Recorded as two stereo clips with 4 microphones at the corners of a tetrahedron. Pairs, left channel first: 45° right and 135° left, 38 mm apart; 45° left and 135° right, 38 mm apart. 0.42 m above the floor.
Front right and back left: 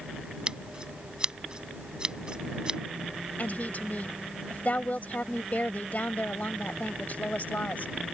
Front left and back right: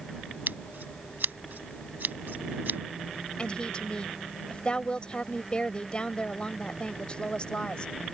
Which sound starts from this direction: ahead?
A woman speaking, at 3.4 s.